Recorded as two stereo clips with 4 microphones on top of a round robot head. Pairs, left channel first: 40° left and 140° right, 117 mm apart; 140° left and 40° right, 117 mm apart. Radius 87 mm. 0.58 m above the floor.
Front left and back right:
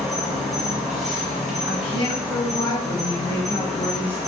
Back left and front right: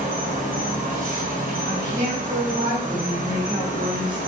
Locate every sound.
0.0 s an insect: 50° right, 1.2 m
1.6 s a woman speaking: straight ahead, 1.8 m